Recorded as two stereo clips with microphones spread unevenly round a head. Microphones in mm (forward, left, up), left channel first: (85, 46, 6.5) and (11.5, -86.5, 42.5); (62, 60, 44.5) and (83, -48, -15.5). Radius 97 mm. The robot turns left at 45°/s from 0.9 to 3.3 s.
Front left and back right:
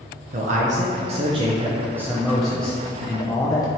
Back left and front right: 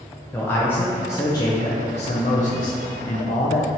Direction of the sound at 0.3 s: 155° right.